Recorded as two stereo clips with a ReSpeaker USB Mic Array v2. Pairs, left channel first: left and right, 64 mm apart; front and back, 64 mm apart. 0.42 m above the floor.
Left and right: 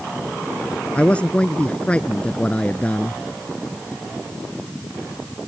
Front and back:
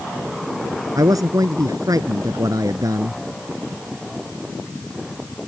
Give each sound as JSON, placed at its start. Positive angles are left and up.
{"t": 0.9, "sound": "a man speaking", "azimuth_deg": 160}